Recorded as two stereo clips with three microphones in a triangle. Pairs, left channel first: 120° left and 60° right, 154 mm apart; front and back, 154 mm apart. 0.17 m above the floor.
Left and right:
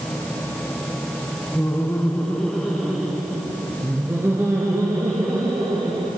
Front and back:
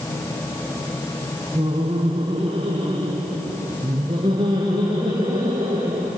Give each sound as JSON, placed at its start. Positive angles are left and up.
{"t": 1.6, "sound": "laughter", "azimuth_deg": 180, "distance_m": 1.9}